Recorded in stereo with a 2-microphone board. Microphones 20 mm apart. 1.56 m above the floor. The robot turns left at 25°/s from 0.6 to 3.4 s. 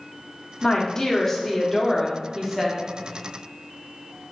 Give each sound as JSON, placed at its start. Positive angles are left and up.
{"t": 0.6, "sound": "a woman speaking", "azimuth_deg": 40, "distance_m": 0.8}